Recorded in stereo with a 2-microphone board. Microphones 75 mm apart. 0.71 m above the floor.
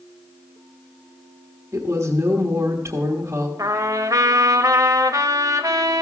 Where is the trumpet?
55° right (ahead or behind), 0.9 m.